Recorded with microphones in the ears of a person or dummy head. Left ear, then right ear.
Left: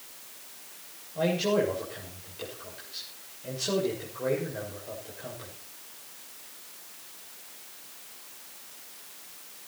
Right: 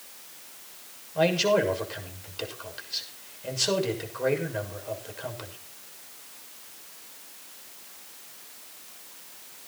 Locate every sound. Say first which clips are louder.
1.1 s a man speaking: right 4 dB; 50° right (ahead or behind), 6.5 m